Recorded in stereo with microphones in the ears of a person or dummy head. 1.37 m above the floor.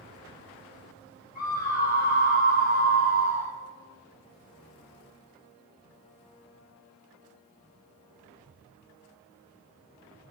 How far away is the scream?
About 7 m.